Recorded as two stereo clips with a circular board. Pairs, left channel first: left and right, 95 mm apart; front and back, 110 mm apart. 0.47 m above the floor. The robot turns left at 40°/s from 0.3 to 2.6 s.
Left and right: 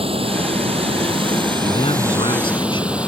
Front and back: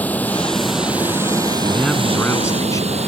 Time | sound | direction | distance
0.0 | running water | 75° right | ?
1.6 | a man speaking | 100° left | ?